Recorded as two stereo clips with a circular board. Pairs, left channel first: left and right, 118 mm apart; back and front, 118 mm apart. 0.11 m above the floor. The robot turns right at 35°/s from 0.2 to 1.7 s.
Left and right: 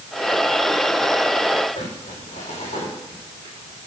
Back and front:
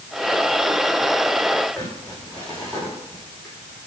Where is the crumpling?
95° left, 5.5 m.